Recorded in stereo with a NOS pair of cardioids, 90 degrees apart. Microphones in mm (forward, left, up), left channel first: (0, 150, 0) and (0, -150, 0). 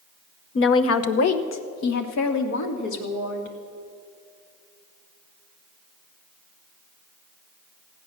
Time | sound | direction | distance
0.6 | a woman speaking | 40° left | 0.9 m